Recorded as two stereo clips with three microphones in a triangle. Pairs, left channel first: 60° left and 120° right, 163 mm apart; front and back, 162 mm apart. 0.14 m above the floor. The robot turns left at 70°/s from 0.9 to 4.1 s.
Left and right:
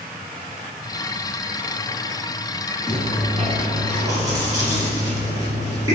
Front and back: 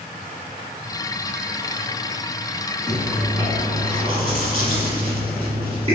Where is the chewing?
85° right, 1.5 m; by 6.0 s 170° right, 1.5 m.